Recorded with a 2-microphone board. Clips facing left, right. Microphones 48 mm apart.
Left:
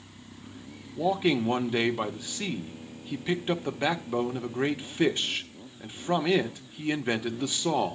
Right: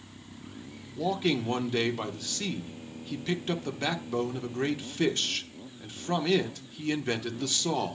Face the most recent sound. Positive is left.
turn(degrees=15)  # may be behind; listen again after turning